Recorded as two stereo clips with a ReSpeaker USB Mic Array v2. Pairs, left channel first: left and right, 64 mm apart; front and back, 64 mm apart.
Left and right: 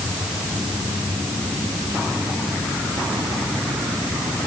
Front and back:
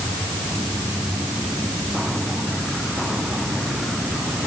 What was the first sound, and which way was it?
Only background noise.